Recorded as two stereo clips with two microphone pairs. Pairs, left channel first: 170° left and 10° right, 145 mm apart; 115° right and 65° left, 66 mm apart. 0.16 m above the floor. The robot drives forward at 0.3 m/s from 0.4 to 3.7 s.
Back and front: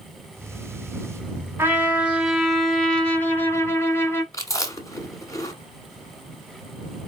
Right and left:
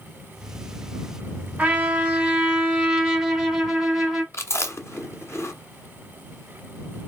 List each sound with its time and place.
1.6 s a trumpet: 30° left, 1.1 m; by 4.2 s 135° left, 1.1 m
4.3 s chewing: 130° right, 1.0 m